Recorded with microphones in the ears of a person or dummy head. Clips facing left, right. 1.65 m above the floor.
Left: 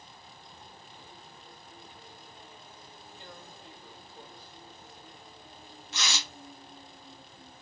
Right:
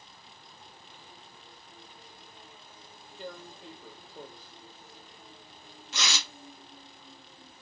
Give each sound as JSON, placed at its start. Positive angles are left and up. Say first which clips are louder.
{"t": 3.2, "sound": "tearing paper", "louder": "right 9 dB", "side_deg": -65, "distance_m": 0.9}